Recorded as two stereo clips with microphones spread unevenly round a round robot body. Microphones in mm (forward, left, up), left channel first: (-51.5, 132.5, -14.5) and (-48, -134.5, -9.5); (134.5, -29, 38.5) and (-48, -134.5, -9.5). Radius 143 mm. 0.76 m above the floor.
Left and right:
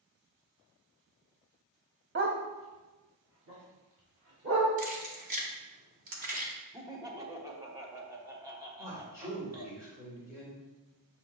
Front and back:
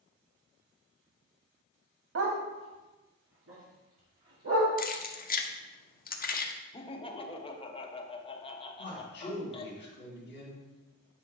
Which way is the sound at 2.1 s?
130° right.